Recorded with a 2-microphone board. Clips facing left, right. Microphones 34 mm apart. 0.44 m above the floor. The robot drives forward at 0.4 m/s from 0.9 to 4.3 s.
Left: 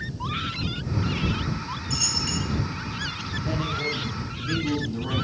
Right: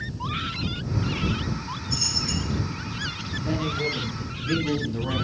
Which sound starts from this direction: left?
A dropped coin, at 1.9 s.